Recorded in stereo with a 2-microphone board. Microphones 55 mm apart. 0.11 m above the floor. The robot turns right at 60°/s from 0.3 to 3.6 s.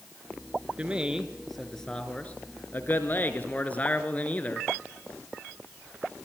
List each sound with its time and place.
0.8 s a man speaking: 40° right, 1.3 m; by 4.7 s 130° left, 1.3 m